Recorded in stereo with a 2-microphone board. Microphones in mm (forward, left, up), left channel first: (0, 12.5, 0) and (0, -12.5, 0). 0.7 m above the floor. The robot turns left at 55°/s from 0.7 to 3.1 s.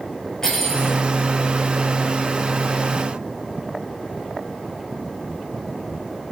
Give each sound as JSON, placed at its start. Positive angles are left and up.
{"t": 0.4, "sound": "cutlery clinking", "side_deg": 25, "distance_m": 8.0}